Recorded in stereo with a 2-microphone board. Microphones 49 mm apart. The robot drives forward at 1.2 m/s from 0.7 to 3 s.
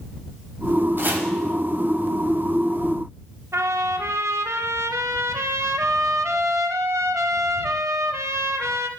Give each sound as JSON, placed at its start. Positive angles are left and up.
{"t": 1.0, "sound": "chopping", "side_deg": -50, "distance_m": 1.3}
{"t": 3.5, "sound": "a trumpet", "side_deg": -85, "distance_m": 0.6}